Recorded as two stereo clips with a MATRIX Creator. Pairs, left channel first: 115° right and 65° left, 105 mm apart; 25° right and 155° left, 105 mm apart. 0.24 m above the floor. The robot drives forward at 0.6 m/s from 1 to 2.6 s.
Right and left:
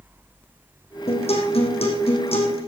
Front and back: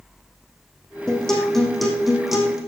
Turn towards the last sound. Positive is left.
turn(degrees=-115)